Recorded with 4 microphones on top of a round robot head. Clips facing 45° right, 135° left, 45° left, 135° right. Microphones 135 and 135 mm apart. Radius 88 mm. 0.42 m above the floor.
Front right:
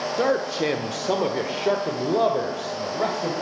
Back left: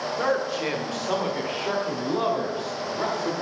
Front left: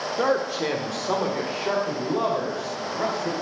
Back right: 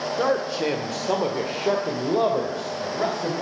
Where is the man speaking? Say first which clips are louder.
Front right 3 dB, even; 50° right, 1.1 m; by 3.3 s 85° right, 2.5 m.